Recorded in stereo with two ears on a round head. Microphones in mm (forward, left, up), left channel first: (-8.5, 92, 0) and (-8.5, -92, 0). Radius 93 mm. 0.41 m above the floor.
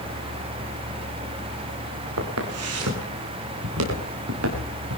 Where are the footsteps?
85° right, 5.5 m.